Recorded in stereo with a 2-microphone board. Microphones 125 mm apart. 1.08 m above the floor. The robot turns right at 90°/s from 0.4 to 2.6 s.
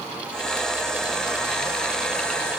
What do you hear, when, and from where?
Only background noise.